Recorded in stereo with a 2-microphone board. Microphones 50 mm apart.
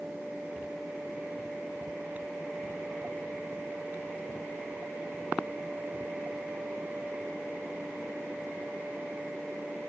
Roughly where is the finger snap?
I don't hear a finger snap.